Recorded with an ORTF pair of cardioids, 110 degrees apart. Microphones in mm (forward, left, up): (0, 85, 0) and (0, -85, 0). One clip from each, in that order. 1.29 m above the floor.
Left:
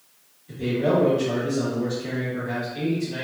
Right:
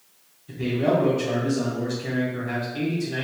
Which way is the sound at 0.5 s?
30° right.